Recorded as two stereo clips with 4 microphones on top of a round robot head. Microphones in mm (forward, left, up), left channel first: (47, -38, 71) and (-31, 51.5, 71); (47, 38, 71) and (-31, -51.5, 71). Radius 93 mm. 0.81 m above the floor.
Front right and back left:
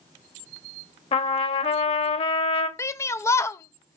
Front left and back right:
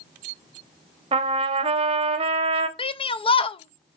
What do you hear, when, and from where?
1.1 s a trumpet: 85° right, 0.9 m
2.8 s a shout: 15° left, 0.6 m